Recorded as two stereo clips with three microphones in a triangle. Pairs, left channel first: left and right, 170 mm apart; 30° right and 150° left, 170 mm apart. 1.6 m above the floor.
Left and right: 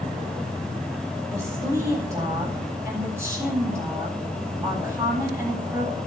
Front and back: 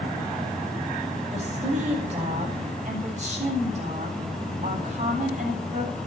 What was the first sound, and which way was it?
A woman speaking, 160° right.